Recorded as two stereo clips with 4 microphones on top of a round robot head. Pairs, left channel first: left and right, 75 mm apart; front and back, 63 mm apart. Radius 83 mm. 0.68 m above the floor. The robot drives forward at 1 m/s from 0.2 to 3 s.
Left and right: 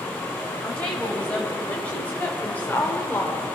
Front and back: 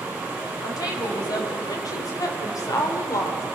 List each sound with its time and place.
0.6 s a woman speaking: 15° left, 5 m; by 3.5 s 25° left, 3 m